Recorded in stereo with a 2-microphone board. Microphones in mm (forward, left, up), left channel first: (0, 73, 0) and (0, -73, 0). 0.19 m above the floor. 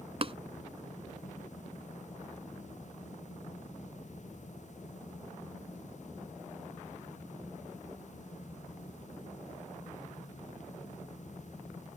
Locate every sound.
0.2 s tapping: 40° right (ahead or behind)